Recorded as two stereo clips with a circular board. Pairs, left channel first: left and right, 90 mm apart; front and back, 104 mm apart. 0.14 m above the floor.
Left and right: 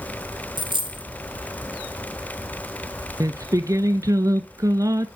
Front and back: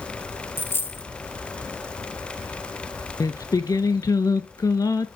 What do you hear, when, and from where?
0.6 s a dropped coin: 70° right, 1.1 m
3.2 s singing: 50° right, 0.7 m